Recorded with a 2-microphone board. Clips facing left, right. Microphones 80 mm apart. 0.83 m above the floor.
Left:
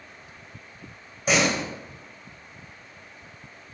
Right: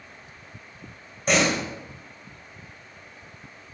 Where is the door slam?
5° left (ahead or behind), 2.5 m.